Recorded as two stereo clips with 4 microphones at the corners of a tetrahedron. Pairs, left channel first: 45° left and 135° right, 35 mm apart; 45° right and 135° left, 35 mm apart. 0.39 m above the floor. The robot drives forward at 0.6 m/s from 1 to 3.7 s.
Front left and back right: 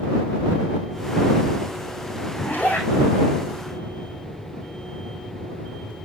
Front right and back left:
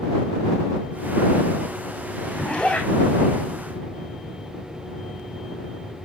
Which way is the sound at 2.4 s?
15° left.